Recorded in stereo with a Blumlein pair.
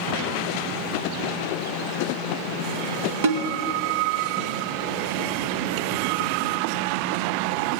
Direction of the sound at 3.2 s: 55° right.